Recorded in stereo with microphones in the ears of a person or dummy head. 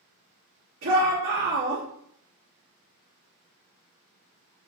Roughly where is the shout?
Right.